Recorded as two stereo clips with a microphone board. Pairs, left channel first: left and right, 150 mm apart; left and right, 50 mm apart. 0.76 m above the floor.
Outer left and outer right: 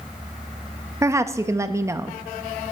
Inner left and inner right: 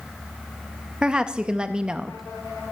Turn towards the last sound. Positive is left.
turn(degrees=-20)  # may be behind; listen again after turning